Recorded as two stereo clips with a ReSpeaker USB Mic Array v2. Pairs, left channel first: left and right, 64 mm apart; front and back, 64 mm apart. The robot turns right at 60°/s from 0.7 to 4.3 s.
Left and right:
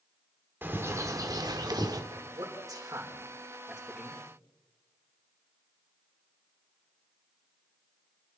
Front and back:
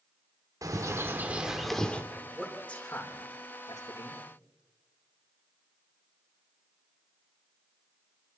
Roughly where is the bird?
Behind right.